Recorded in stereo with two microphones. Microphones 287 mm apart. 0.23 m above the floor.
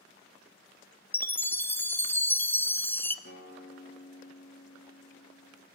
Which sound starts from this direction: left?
A guitar, at 3.2 s.